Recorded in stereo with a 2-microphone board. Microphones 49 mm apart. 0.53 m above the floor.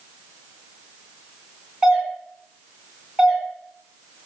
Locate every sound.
1.8 s a doorbell: 5° right (ahead or behind), 1.7 m